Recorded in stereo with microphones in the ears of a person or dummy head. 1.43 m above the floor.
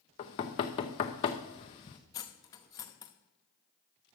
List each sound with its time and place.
0.2 s knocking: 25° left (ahead or behind), 0.6 m
2.1 s cutlery clinking: 20° left (ahead or behind), 0.9 m